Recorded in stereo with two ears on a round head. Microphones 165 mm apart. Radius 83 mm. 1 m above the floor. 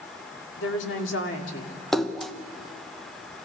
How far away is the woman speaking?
About 2.5 m.